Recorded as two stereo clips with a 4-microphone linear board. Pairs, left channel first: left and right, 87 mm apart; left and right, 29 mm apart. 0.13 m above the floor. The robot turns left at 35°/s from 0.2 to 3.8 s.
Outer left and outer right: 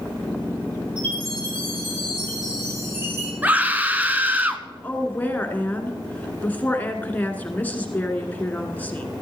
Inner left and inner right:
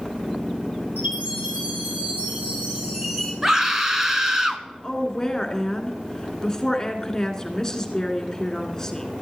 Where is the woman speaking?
20° left (ahead or behind), 1.7 m.